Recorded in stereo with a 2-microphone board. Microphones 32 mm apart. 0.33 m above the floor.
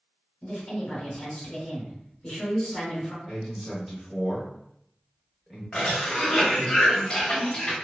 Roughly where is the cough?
Left.